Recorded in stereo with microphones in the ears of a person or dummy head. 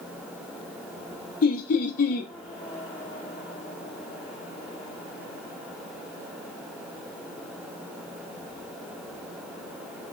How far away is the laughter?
About 0.6 m.